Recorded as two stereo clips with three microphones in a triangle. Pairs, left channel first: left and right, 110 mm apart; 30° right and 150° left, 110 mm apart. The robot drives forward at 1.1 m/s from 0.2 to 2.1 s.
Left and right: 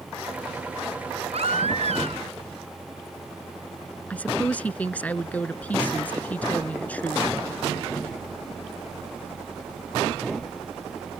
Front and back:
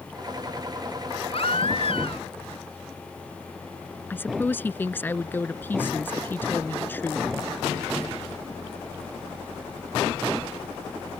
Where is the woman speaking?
25° left.